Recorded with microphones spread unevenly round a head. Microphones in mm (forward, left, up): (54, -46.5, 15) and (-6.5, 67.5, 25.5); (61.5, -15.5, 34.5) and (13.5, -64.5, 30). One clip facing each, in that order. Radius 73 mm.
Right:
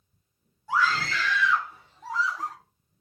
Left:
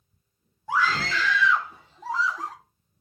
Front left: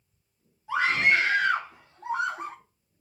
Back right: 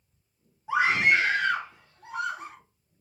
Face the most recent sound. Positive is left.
turn(degrees=100)